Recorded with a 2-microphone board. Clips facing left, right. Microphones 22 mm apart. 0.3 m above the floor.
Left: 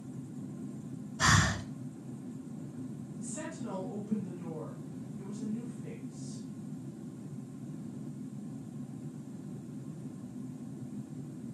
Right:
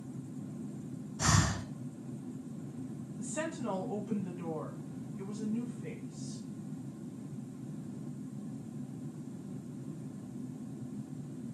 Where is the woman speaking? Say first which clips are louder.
Right 4 dB; 40° right (ahead or behind), 2 m.